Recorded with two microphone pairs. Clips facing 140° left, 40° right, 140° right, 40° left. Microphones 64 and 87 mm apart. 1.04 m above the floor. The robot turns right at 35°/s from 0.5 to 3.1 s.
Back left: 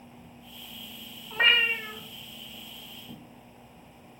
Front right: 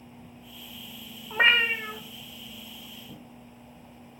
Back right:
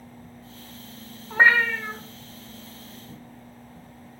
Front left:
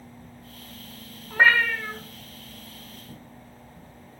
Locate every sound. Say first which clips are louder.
1.3 s a cat meowing: front right 2 dB, back right 1 dB; 90° right, 0.7 m; by 2.0 s 65° right, 0.7 m